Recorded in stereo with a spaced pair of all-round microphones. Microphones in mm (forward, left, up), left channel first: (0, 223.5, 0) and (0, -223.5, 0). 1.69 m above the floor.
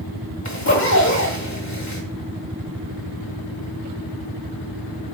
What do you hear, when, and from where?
0.5 s a zipper: 40° left (ahead or behind), 2.5 m